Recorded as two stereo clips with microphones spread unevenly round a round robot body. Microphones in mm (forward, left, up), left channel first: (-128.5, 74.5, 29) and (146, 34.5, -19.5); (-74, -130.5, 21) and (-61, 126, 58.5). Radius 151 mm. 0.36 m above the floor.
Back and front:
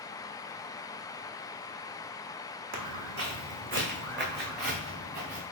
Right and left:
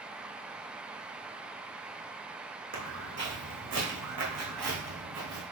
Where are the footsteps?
25° left, 1.3 m; by 5.4 s 55° left, 2.5 m.